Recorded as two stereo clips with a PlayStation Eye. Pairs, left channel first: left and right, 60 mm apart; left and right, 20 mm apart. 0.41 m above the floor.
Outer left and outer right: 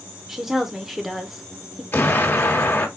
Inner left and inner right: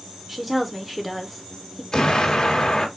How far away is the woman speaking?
About 0.7 m.